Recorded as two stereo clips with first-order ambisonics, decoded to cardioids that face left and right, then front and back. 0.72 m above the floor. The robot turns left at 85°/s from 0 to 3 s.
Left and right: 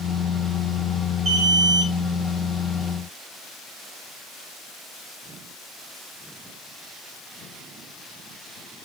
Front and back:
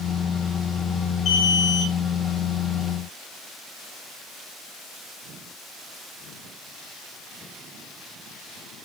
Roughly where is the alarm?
Ahead right.